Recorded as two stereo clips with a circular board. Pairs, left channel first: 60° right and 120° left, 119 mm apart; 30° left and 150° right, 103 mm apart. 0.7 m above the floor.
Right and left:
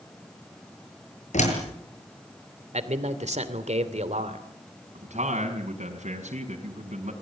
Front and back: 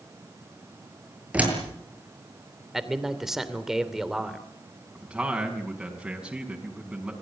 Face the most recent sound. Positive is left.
turn(degrees=125)